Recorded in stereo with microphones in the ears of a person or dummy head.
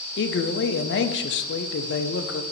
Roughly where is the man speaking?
Left.